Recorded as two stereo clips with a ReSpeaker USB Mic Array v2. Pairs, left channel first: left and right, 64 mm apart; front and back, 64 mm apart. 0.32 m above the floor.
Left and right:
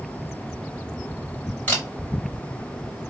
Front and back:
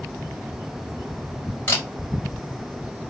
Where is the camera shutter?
40° left, 1.8 m.